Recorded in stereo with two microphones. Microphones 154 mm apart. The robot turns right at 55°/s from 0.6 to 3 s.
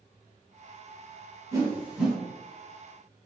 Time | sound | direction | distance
1.5 | a whoosh | 20° right (ahead or behind) | 1.3 m